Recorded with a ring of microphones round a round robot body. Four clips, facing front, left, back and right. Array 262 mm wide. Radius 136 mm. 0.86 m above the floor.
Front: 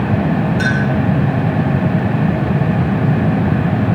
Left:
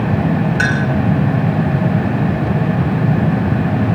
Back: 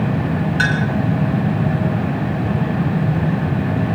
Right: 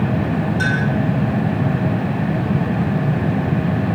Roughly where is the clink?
Behind left.